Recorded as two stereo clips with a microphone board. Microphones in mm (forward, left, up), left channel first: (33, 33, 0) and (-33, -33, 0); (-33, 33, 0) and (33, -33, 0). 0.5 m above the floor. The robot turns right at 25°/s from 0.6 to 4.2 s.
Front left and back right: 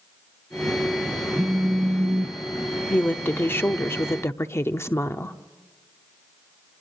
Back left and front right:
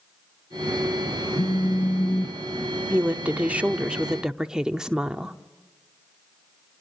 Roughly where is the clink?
No clink in this recording.